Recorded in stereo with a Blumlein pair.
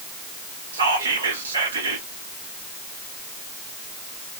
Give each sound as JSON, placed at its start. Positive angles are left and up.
{"t": 0.7, "sound": "whispering", "azimuth_deg": -70, "distance_m": 1.1}